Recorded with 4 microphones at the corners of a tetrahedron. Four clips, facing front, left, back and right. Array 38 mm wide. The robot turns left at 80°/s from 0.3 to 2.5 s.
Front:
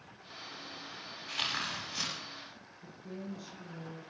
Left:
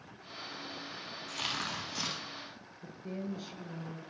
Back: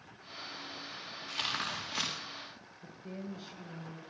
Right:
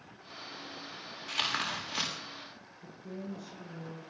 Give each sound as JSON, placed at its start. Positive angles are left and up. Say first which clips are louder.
{"t": 1.3, "sound": "tearing paper", "louder": "right 4 dB, front 1 dB", "azimuth_deg": -75, "distance_m": 8.0}
{"t": 2.8, "sound": "a woman speaking", "louder": "left 2 dB, even", "azimuth_deg": 120, "distance_m": 6.5}